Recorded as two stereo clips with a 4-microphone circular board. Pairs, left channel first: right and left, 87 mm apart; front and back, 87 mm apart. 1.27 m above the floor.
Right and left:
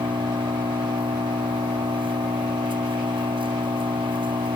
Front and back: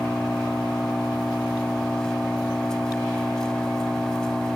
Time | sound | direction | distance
0.0 | an engine running | 85° left | ?